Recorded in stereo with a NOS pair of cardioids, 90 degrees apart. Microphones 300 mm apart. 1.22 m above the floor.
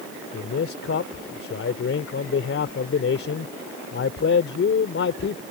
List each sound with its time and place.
0.3 s a man speaking: 50° left